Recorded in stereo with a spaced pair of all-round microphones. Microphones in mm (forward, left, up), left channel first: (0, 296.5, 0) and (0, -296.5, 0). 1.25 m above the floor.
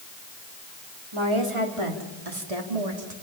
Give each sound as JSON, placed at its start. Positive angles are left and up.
{"t": 1.1, "sound": "a woman speaking", "side_deg": -45, "distance_m": 3.0}